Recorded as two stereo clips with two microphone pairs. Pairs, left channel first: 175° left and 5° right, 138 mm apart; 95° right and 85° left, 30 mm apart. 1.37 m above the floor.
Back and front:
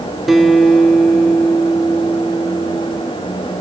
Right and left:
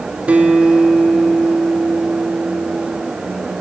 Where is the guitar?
85° left, 1.4 m.